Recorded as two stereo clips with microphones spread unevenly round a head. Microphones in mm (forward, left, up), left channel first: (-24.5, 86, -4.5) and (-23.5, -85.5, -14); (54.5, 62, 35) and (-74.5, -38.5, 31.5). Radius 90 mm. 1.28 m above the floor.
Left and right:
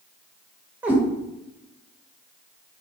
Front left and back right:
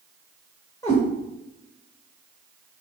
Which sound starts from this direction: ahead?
A cat meowing, at 0.8 s.